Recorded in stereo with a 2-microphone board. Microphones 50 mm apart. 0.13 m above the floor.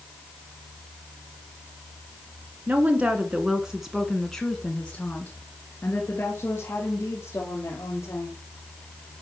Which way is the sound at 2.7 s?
35° right (ahead or behind).